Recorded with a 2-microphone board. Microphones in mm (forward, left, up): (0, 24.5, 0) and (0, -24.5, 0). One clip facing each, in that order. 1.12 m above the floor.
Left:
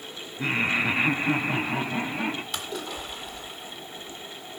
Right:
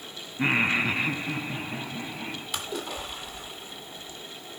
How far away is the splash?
About 2.5 m.